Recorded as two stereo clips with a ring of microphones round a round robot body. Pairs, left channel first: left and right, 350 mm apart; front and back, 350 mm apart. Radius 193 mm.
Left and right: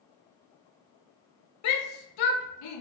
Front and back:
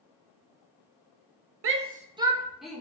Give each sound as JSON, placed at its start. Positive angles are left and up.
{"t": 1.6, "sound": "a shout", "azimuth_deg": 130, "distance_m": 0.6}